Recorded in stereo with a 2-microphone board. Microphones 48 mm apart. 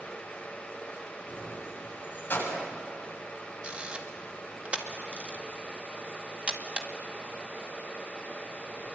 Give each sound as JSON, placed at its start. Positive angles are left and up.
{"t": 1.3, "sound": "keys jangling", "side_deg": 45, "distance_m": 7.0}
{"t": 3.6, "sound": "a camera shutter", "side_deg": -30, "distance_m": 2.0}